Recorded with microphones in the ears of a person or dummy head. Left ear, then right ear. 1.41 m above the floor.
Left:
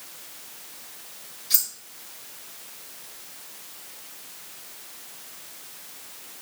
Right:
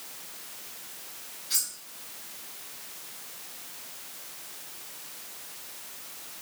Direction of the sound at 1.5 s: 25° left (ahead or behind).